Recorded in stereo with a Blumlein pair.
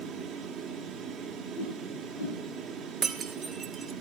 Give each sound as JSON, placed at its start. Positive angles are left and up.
{"t": 0.0, "sound": "a fan", "azimuth_deg": -25, "distance_m": 1.7}
{"t": 1.6, "sound": "a whoosh", "azimuth_deg": 65, "distance_m": 7.0}
{"t": 3.0, "sound": "breaking glass", "azimuth_deg": -20, "distance_m": 1.3}